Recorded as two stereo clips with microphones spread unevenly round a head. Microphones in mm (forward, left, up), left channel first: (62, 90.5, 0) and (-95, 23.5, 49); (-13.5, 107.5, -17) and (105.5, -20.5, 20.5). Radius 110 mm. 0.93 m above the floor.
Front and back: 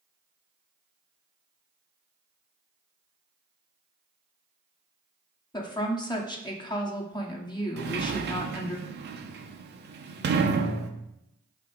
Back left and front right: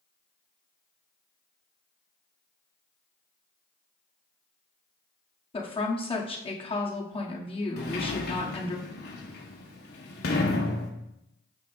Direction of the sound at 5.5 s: 80° left.